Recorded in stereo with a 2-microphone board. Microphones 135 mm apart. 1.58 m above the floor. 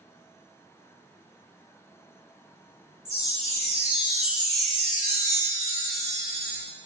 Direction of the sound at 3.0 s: 55° right (ahead or behind).